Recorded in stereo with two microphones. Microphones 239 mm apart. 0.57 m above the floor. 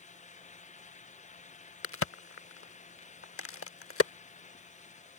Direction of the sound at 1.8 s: 65° left (ahead or behind).